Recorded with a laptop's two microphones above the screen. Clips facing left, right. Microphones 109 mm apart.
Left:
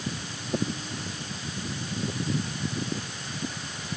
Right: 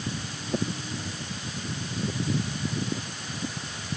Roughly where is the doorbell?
I don't hear a doorbell.